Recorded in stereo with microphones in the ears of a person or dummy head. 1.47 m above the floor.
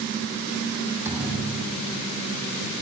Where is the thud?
10° right (ahead or behind), 5 m.